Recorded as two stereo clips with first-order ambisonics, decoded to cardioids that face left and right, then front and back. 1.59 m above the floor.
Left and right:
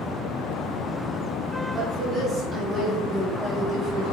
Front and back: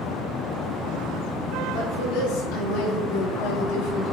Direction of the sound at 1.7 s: 20° right.